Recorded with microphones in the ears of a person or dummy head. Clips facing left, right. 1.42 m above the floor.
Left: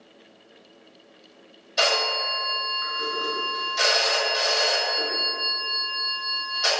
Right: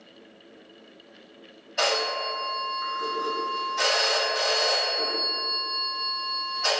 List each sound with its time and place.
1.8 s a phone ringing: 50° left (ahead or behind), 1.3 m